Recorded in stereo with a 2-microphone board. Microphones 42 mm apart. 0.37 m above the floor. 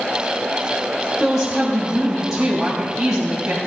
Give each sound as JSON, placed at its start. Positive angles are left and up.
{"t": 1.2, "sound": "a woman speaking", "side_deg": -20, "distance_m": 1.8}